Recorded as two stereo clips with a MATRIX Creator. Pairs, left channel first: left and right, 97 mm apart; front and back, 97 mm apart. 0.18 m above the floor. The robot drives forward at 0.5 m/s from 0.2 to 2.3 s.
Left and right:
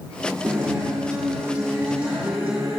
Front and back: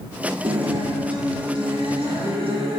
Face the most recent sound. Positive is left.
turn(degrees=-165)